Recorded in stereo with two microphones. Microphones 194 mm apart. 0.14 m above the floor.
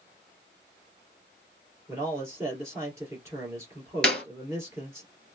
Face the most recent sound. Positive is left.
turn(degrees=5)  # may be behind; listen again after turning